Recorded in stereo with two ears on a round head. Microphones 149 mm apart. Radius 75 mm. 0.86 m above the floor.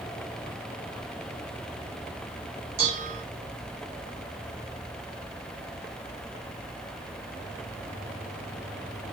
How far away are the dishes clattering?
About 3.5 m.